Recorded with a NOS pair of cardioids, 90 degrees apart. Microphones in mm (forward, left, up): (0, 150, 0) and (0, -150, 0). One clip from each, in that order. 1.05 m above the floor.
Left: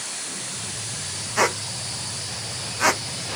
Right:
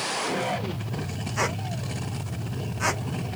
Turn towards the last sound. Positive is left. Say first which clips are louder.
# left 6 dB
turn(degrees=45)